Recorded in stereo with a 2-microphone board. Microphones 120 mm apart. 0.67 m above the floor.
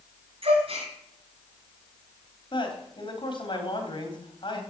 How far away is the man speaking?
About 3.5 m.